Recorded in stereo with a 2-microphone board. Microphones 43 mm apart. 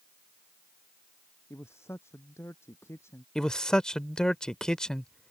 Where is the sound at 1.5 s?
85° left.